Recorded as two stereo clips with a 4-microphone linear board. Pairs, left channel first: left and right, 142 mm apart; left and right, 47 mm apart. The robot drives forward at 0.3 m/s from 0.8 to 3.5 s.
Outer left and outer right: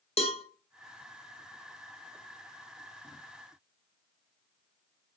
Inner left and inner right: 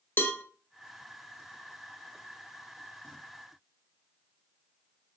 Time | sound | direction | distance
0.2 | a cowbell | 45° left (ahead or behind) | 0.7 m